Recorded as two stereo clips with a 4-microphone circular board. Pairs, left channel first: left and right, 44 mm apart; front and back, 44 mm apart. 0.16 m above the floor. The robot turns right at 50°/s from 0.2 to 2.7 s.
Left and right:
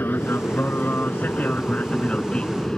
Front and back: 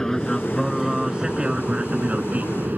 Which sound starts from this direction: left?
An aircraft, at 0.0 s.